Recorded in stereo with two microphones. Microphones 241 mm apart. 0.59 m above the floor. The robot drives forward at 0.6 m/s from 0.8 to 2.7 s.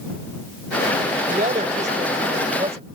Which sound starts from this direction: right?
A woman speaking, at 1.3 s.